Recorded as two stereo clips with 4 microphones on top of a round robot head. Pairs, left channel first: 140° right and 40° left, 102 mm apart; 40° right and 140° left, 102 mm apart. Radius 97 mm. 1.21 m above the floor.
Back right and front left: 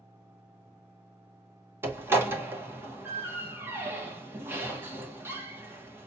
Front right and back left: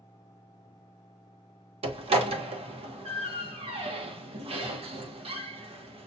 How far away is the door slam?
About 1.0 m.